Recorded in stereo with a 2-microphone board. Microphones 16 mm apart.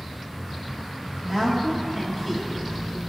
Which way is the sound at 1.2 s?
20° right (ahead or behind).